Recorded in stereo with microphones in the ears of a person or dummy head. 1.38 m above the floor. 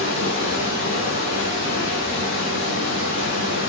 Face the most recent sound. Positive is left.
turn(degrees=40)  # may be behind; listen again after turning